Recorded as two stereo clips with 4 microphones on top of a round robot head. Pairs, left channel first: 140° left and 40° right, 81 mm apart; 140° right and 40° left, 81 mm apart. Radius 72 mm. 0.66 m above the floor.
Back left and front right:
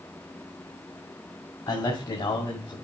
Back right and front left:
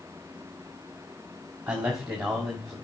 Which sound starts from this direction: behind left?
A man speaking, at 1.7 s.